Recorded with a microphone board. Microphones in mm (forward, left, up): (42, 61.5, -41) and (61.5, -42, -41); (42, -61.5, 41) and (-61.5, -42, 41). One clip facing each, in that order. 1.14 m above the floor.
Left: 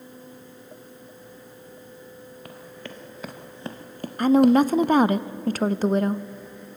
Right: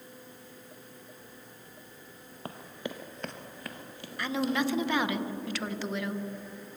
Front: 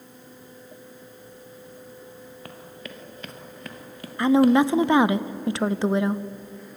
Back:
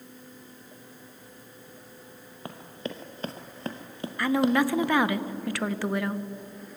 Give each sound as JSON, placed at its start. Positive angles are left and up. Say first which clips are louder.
{"t": 2.5, "sound": "running footsteps", "louder": "right 4 dB, back 7 dB", "azimuth_deg": -130, "distance_m": 1.8}
{"t": 4.2, "sound": "a woman speaking", "louder": "left 13 dB, front 6 dB", "azimuth_deg": 55, "distance_m": 0.6}